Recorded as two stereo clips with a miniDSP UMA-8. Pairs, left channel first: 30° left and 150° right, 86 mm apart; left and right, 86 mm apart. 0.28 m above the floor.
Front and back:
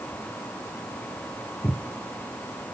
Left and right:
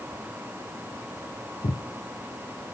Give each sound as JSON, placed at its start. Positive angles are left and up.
{"t": 1.6, "sound": "footsteps", "azimuth_deg": 105, "distance_m": 1.0}